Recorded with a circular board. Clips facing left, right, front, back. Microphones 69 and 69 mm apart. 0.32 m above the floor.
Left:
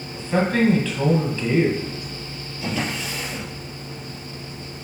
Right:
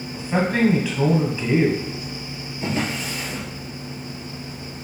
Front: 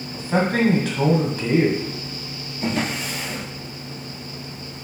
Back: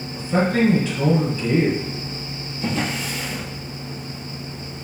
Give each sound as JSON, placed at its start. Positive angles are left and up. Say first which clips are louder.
{"t": 0.1, "sound": "a man speaking", "louder": "left 1 dB, back 1 dB", "azimuth_deg": -10, "distance_m": 2.0}
{"t": 2.6, "sound": "a drawer", "louder": "right 1 dB, even", "azimuth_deg": -35, "distance_m": 3.0}